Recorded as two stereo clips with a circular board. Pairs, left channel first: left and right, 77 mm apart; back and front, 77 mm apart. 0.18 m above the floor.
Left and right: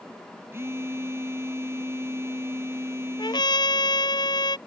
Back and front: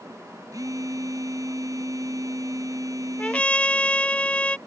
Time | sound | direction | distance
0.5 | a phone buzzing | 35° right | ?
3.2 | a trumpet | 105° left | ?